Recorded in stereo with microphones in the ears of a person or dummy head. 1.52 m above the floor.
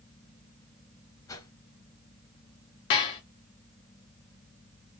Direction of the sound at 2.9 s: 15° left (ahead or behind).